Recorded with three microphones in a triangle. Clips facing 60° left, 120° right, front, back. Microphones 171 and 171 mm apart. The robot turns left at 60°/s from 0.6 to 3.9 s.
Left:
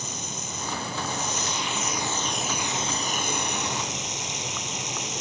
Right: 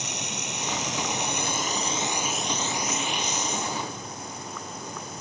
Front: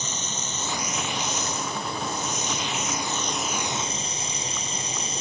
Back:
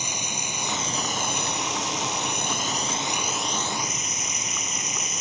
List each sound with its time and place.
0.0 s running water: 100° right; by 5.2 s 60° left